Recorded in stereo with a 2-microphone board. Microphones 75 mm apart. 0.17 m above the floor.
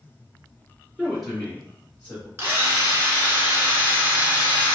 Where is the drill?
30° right (ahead or behind), 1.0 m.